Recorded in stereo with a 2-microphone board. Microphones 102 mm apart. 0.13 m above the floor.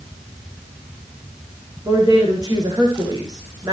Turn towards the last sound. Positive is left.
turn(degrees=-40)  # may be behind; listen again after turning